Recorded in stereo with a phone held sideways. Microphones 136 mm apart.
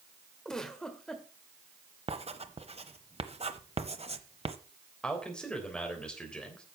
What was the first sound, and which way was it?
A giggle, 5° left (ahead or behind).